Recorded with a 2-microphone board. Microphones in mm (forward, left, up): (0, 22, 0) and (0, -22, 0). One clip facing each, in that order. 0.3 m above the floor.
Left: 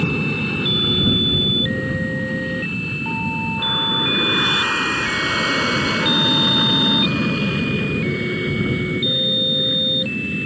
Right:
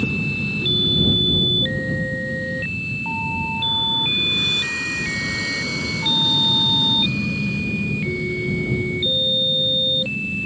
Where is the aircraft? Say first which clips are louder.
Left 2 dB; 55° left (ahead or behind); by 10.5 s 70° left (ahead or behind).